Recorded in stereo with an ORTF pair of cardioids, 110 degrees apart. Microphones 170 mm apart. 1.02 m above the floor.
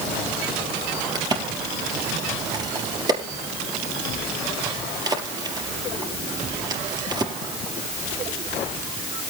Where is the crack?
25° right, 3.5 m.